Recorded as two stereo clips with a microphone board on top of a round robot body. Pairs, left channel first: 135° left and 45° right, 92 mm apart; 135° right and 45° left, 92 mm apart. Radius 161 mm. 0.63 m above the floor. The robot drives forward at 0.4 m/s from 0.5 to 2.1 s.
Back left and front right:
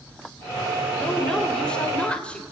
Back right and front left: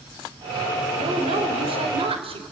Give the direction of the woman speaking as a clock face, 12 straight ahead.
10 o'clock.